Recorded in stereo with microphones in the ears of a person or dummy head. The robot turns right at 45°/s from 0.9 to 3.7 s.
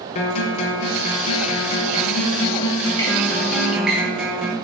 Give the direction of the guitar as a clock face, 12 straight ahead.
10 o'clock.